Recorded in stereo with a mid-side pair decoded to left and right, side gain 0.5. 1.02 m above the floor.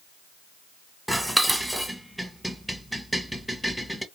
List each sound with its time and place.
1.1 s dishes clattering: 5° right, 0.8 m